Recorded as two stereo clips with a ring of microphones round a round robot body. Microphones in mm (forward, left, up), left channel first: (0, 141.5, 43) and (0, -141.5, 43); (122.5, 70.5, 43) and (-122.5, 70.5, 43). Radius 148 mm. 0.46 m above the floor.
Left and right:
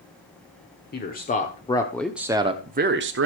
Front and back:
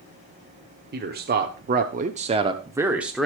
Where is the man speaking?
140° left, 1.4 m; by 3.3 s 90° right, 1.1 m.